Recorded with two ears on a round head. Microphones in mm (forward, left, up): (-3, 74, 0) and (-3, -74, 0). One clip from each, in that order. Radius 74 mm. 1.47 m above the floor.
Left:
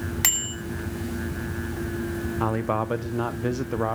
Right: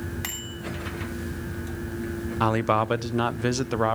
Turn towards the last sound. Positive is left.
turn(degrees=-65)  # may be behind; listen again after turning